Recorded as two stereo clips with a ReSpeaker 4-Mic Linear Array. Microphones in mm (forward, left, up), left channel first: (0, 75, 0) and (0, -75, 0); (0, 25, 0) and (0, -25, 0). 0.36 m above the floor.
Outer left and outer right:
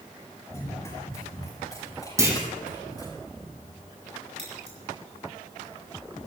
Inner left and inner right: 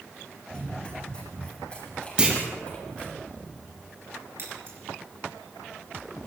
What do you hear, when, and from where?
0.5 s running footsteps: 20° left (ahead or behind), 6 m; by 3.2 s 25° left (ahead or behind), 7 m
2.2 s a clunk: 20° right (ahead or behind), 3 m
4.4 s scissors: 50° right (ahead or behind), 6 m